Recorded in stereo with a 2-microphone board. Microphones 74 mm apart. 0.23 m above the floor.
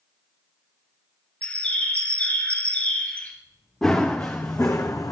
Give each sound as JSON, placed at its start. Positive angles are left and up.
{"t": 1.4, "sound": "a bird", "side_deg": 25, "distance_m": 1.6}
{"t": 3.8, "sound": "running footsteps", "side_deg": 15, "distance_m": 1.3}